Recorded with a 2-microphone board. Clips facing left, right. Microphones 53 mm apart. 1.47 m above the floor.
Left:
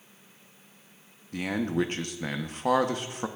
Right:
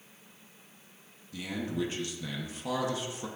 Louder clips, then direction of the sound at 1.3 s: Left 6 dB; 55° left (ahead or behind).